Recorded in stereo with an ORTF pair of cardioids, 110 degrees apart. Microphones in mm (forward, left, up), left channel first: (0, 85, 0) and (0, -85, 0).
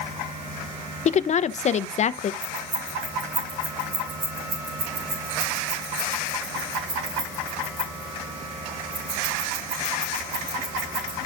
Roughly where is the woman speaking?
Ahead left.